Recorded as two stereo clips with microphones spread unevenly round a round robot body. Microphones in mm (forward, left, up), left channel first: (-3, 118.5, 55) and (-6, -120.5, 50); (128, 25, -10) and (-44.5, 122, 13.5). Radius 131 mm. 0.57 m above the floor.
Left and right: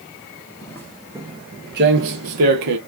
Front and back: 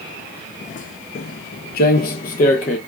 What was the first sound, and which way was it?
Footsteps, 20° left.